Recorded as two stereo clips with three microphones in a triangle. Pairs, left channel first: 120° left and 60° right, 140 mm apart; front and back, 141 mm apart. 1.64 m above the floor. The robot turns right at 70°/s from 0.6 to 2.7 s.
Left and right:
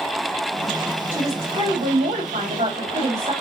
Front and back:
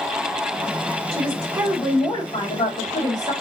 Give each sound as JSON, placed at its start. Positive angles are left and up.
{"t": 1.1, "sound": "a woman speaking", "azimuth_deg": -140, "distance_m": 4.0}